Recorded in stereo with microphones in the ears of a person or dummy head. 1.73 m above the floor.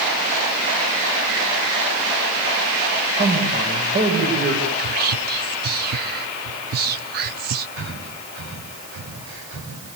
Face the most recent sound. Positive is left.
turn(degrees=-85)